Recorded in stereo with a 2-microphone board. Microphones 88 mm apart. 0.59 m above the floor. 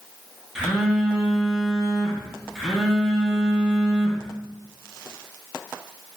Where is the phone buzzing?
5° right (ahead or behind), 0.7 m.